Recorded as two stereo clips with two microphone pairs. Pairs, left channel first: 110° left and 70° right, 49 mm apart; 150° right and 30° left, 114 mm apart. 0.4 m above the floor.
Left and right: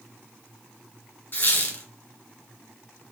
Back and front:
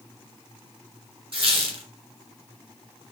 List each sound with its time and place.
1.3 s a squeak: 70° left, 1.3 m